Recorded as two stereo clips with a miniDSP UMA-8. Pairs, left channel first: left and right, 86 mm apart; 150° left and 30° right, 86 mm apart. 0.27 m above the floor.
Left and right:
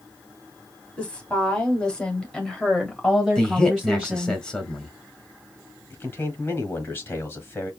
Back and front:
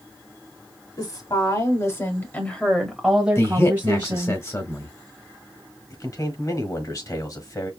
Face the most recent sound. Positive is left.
turn(degrees=135)